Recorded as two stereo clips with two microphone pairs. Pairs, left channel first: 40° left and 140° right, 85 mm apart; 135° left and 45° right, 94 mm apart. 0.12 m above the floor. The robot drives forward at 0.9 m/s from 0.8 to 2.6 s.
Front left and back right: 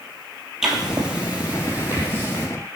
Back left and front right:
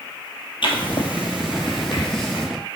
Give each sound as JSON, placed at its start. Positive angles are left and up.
{"t": 0.6, "sound": "writing", "azimuth_deg": 140, "distance_m": 1.6}